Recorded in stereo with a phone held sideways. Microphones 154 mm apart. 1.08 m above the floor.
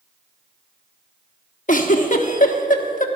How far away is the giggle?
About 1.2 m.